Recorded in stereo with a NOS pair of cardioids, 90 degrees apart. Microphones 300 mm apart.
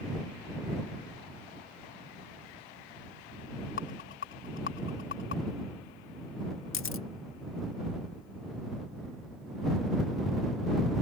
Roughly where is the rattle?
Ahead left.